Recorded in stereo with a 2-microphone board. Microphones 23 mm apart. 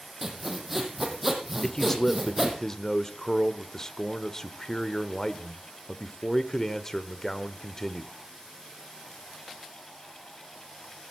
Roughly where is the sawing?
Centre.